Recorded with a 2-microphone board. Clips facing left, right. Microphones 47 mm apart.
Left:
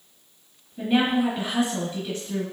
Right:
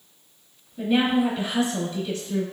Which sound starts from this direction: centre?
A woman speaking, at 0.8 s.